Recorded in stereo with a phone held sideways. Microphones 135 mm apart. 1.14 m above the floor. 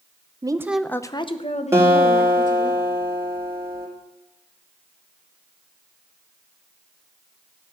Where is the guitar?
20° right (ahead or behind), 3.5 m.